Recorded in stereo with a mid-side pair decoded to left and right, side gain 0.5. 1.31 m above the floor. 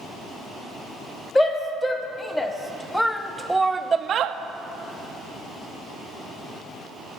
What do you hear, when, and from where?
1.4 s a shout: 25° left, 1.8 m; by 4.4 s 75° right, 0.5 m